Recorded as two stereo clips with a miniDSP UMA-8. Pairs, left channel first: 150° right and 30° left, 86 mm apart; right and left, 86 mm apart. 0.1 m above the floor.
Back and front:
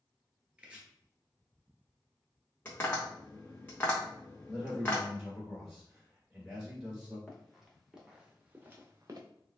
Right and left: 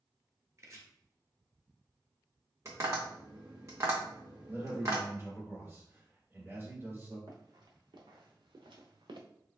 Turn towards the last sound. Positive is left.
turn(degrees=75)